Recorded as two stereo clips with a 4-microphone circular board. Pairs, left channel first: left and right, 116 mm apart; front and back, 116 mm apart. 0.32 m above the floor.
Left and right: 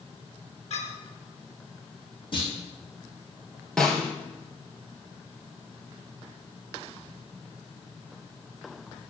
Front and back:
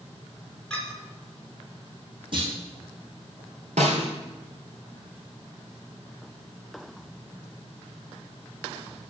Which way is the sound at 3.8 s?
175° left.